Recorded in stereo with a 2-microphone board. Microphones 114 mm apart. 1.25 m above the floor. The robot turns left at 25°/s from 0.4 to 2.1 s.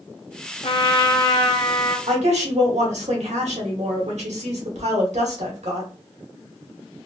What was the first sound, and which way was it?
A trumpet, 60° left.